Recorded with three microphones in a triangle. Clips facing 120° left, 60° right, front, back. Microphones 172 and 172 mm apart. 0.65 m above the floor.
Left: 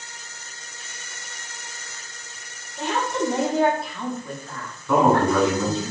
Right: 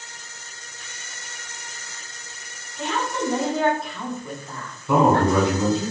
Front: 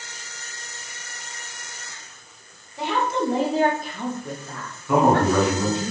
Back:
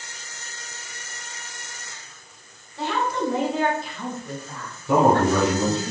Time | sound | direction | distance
2.8 | a woman speaking | 75° left | 1.0 m
4.9 | a man speaking | 125° right | 2.0 m